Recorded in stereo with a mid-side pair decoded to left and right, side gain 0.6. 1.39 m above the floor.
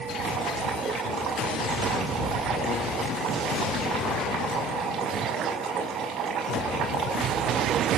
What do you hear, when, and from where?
0.1 s boiling: 55° right, 6 m